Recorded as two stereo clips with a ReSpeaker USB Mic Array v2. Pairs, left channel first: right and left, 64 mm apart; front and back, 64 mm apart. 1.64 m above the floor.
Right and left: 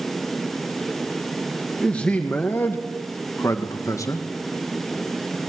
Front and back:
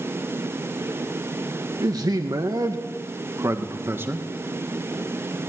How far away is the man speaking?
About 1.9 m.